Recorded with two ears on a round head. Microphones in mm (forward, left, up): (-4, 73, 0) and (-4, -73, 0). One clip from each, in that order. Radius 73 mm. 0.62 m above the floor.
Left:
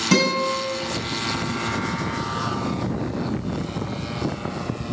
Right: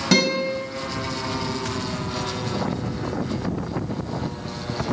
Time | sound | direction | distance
0.1 | a guitar | 5° right (ahead or behind) | 3.5 m